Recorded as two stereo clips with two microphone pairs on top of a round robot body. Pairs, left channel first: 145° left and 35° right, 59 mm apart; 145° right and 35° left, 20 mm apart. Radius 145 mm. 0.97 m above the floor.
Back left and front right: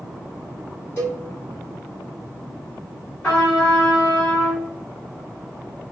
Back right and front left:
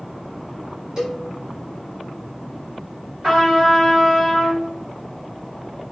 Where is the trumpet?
75° left, 1.6 m.